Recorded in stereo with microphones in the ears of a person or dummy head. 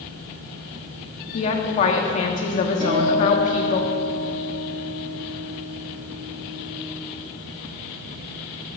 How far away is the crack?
I don't hear a crack.